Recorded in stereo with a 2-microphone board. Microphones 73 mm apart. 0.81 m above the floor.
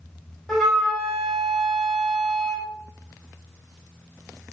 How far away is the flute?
About 2 m.